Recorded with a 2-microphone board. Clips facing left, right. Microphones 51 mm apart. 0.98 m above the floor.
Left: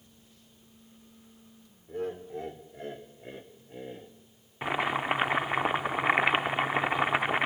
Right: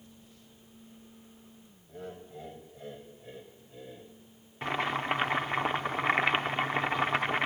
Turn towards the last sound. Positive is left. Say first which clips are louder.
# left 2 dB
turn(degrees=15)  # may be behind; listen again after turning